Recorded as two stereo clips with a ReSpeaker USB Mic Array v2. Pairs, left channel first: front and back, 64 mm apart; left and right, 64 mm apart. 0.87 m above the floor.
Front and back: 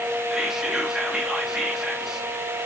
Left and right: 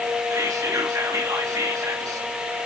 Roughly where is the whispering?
Right.